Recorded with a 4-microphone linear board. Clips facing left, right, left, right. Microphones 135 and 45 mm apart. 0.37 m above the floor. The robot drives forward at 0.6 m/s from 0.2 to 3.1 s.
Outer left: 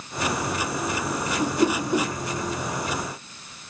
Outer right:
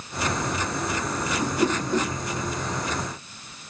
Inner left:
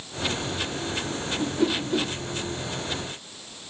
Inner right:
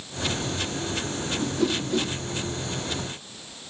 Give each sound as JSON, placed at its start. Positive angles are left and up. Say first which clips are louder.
{"t": 1.4, "sound": "a whoosh", "louder": "outer left 2 dB, inner left 1 dB", "side_deg": 15, "distance_m": 1.5}